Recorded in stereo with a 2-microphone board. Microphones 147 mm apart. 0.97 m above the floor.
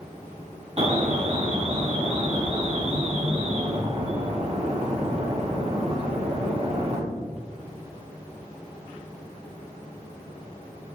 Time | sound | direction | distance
0.8 | an alarm | 45° right (ahead or behind) | 1.6 m